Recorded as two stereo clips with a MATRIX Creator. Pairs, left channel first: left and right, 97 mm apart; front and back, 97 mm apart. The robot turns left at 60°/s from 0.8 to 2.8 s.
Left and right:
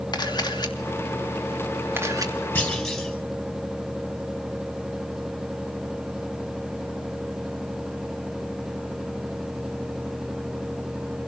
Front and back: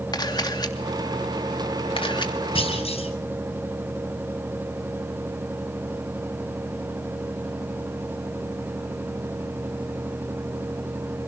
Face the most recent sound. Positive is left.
turn(degrees=0)